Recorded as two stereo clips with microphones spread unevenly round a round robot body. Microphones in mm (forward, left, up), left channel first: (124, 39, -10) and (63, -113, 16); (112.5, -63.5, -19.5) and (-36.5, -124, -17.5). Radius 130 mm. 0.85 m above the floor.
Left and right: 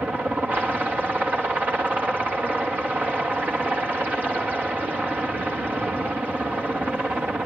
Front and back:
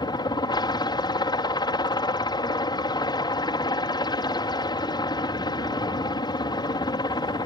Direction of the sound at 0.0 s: 25° right.